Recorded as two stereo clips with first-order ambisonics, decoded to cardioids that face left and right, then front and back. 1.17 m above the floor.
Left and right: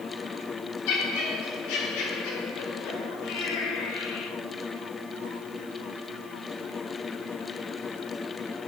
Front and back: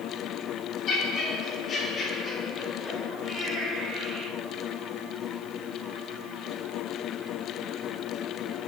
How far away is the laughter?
About 4.5 m.